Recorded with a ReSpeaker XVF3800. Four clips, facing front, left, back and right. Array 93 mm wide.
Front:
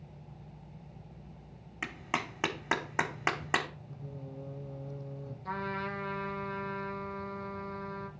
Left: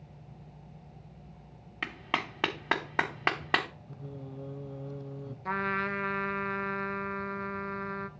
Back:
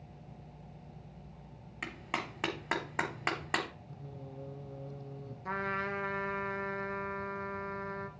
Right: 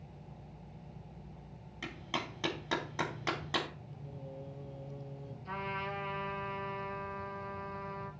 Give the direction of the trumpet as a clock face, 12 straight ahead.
8 o'clock.